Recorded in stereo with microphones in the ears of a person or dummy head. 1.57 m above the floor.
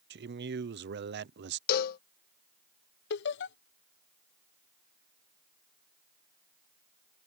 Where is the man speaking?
55° right (ahead or behind).